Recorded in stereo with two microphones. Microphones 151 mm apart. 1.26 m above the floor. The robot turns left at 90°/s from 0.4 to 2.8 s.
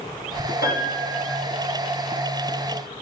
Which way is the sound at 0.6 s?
90° left.